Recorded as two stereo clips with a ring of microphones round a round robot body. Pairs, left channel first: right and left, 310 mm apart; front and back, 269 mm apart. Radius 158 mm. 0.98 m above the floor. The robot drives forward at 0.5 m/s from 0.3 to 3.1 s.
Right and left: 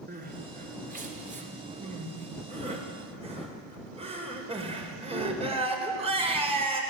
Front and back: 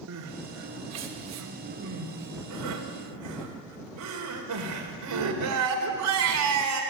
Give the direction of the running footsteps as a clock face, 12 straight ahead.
I don't hear running footsteps.